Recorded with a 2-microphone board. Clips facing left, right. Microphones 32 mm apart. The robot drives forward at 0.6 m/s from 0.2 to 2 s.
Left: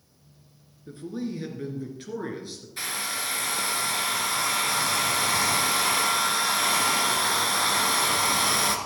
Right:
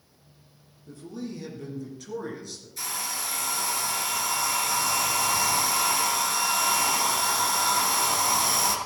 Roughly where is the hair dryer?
Left.